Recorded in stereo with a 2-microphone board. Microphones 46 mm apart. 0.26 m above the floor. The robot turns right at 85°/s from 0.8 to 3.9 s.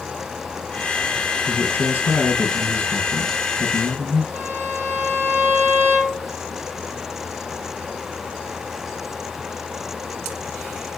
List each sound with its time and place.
1.5 s a man speaking: 20° left, 6.5 m; by 4.2 s 130° right, 6.5 m
4.3 s a violin: 65° right (ahead or behind), 3 m